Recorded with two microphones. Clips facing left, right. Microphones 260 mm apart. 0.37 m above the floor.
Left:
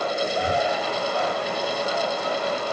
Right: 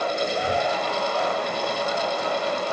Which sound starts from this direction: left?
Breathing, at 0.4 s.